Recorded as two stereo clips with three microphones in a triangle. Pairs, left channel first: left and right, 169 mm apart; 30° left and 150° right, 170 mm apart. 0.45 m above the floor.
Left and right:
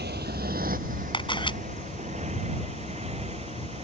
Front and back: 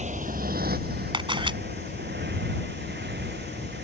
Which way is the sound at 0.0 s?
105° right.